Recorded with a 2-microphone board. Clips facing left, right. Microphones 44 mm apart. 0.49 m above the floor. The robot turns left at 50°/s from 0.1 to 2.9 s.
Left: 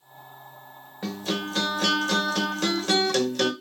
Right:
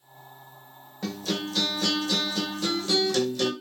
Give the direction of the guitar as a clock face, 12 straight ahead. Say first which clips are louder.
Left 1 dB; 7 o'clock.